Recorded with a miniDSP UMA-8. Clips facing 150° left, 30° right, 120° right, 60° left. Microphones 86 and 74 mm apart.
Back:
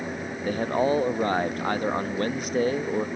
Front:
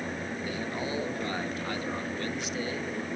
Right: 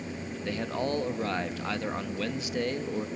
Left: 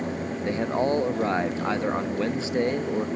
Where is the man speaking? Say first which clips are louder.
Back 13 dB, left 7 dB; 120° left, 1.0 m.